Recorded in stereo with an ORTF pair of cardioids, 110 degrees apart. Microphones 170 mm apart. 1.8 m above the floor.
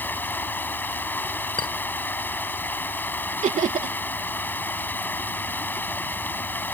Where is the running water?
10° left.